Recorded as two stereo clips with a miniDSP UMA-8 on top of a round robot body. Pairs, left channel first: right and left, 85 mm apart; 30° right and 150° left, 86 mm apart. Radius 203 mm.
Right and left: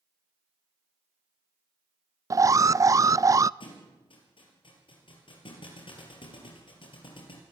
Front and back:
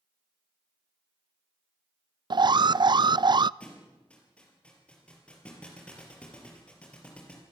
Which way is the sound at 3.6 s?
105° right.